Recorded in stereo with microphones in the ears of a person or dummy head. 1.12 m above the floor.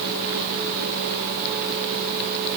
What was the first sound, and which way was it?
Only background noise.